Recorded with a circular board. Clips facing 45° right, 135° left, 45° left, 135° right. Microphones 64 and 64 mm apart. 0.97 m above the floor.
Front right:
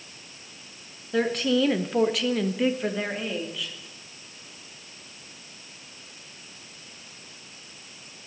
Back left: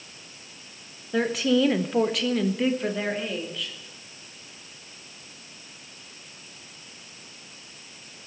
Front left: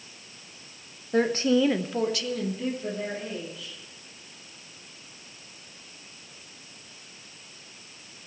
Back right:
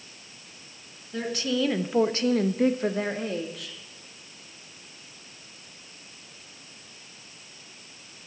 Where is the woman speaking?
50° left, 1.1 m; by 3.8 s 130° right, 2.5 m.